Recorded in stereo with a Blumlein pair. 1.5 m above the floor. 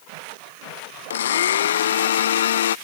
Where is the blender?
60° left.